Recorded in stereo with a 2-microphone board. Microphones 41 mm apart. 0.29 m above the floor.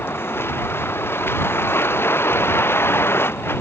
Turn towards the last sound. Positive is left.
turn(degrees=90)